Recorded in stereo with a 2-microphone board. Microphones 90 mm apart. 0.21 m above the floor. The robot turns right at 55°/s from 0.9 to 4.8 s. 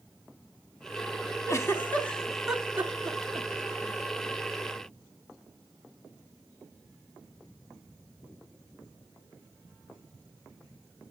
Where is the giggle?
35° left (ahead or behind), 0.8 m; by 3.5 s 40° right (ahead or behind), 0.8 m.